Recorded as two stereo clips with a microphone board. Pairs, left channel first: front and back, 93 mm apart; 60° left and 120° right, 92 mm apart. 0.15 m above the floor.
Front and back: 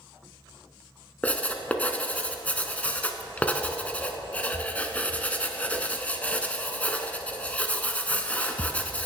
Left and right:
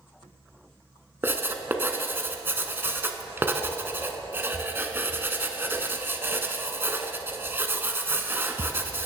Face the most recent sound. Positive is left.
turn(degrees=-65)